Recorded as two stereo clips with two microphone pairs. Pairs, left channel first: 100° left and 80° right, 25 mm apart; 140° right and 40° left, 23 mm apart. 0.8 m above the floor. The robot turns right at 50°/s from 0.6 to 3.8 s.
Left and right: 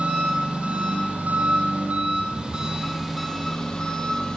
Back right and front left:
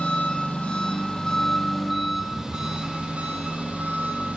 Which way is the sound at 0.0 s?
115° right.